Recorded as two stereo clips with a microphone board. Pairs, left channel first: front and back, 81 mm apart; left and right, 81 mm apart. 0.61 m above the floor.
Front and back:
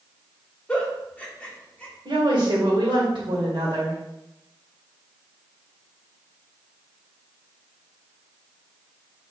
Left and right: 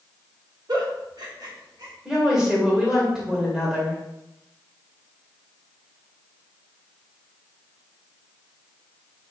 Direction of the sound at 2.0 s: 175° right.